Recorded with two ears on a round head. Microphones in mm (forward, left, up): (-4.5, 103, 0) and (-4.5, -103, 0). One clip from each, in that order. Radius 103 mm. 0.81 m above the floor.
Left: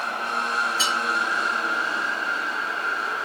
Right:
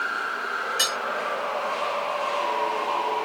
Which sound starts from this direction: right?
Cutlery clinking, at 0.8 s.